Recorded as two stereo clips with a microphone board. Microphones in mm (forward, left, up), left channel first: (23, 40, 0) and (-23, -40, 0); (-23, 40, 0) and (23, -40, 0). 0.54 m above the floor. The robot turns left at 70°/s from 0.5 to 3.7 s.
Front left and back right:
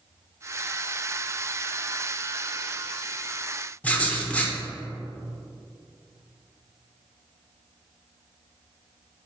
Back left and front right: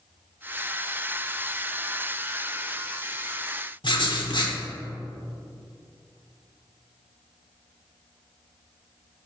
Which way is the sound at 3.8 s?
130° left.